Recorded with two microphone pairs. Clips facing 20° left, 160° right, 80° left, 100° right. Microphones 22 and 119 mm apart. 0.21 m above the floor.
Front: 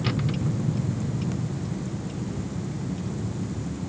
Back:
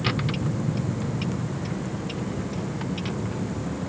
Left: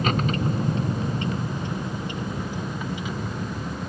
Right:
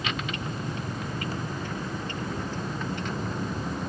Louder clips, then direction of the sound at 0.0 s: Back 1 dB, left 8 dB; 130° left.